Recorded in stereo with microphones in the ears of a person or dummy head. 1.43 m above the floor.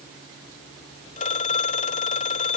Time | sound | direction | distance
1.2 | a phone ringing | 35° left (ahead or behind) | ?